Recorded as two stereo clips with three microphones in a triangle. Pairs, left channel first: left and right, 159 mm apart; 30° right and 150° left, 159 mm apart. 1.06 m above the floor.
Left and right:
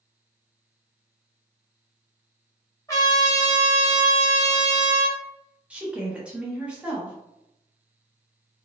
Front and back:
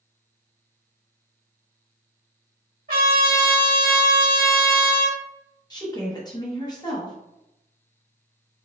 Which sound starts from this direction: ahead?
A woman speaking, at 5.7 s.